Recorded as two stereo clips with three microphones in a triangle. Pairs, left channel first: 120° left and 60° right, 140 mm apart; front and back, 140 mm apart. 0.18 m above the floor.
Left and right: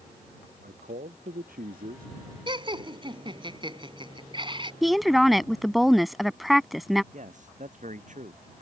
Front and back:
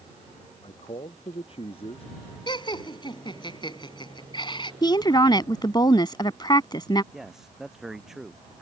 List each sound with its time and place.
0.6 s a man speaking: 50° right
2.5 s laughter: 35° right
4.8 s a woman speaking: 30° left
7.1 s a man speaking: 95° right